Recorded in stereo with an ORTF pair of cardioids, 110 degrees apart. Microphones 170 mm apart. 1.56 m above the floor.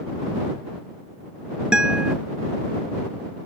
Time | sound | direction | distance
1.7 | a guitar | 5° right | ?